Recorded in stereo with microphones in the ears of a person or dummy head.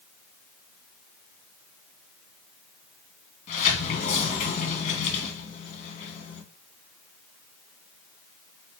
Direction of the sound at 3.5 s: 40° left (ahead or behind).